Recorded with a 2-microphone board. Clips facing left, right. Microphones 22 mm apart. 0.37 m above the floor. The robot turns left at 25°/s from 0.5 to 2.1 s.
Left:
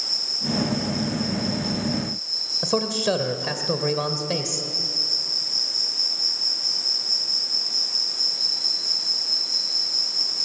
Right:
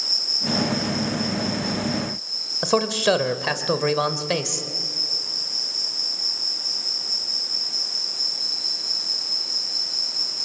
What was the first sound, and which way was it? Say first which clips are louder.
An insect: right 2 dB; 160° right.